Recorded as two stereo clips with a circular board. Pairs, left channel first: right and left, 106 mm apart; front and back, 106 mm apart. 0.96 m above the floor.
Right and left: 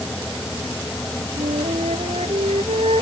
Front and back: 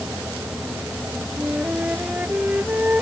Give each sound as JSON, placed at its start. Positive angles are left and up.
{"t": 1.4, "sound": "a flute", "azimuth_deg": 105}